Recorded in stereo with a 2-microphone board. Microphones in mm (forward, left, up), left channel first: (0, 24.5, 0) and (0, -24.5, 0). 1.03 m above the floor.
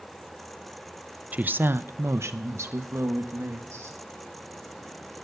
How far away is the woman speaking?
About 0.6 m.